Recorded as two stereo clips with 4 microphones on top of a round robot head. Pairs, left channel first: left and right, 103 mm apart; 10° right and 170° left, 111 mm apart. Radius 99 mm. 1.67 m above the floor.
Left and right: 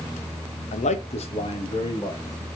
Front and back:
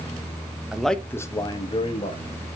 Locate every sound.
0.7 s a man speaking: 90° left, 1.2 m; by 2.2 s 30° left, 2 m